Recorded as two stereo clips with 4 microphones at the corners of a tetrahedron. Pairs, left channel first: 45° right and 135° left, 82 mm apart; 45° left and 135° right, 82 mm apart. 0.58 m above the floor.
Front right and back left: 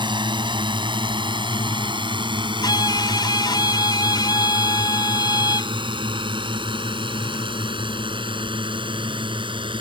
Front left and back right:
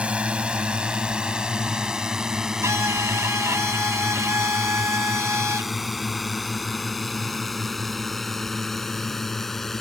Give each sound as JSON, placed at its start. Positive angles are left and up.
{"t": 0.0, "sound": "a drone", "azimuth_deg": 150}
{"t": 2.6, "sound": "a violin", "azimuth_deg": -80}